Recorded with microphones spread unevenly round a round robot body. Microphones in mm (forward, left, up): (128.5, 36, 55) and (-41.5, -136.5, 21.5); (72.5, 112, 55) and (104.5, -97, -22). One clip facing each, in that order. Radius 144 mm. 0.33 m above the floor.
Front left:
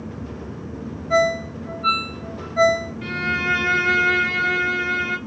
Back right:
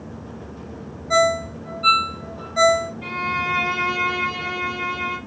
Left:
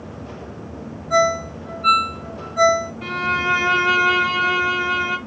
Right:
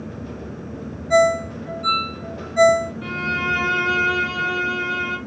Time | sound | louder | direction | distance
1.1 | a ringtone | even, right 3 dB | 105° right | 0.9 m
3.0 | a violin | front left 4 dB, even | 30° left | 0.9 m